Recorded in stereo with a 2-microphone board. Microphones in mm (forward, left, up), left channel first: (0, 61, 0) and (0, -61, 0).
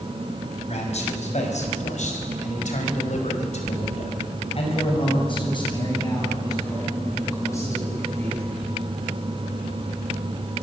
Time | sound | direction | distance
0.7 | a man speaking | 65° left (ahead or behind) | 5.5 m